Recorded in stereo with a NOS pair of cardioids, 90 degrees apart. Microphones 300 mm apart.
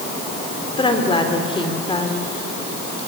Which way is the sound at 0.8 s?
15° left.